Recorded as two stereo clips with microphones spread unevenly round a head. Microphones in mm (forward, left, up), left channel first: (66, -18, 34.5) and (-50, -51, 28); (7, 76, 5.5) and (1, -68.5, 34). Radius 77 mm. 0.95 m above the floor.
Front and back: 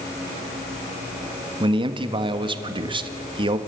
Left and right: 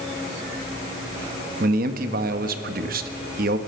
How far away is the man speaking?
About 1.5 m.